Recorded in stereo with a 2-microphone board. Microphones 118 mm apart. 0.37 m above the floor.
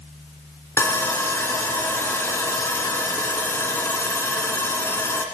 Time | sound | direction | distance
0.8 | sawing | 25° left (ahead or behind) | 1.0 m